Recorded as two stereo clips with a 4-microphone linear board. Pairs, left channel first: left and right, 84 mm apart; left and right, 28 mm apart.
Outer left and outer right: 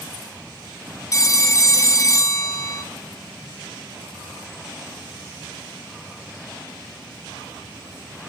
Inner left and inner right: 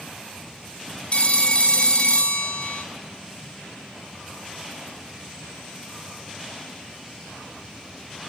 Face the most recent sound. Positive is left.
turn(degrees=40)  # may be behind; listen again after turning